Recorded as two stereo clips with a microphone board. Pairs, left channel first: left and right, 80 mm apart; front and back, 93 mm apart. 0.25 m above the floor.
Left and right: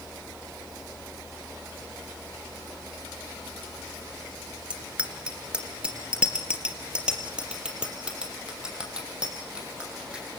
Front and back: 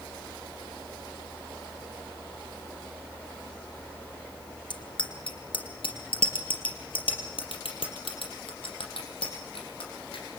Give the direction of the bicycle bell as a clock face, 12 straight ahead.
1 o'clock.